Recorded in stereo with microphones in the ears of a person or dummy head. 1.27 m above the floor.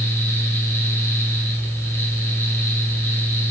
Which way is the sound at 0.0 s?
15° left (ahead or behind).